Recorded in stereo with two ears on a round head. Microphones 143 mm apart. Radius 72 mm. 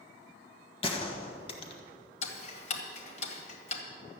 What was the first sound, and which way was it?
A gunshot, 35° left (ahead or behind).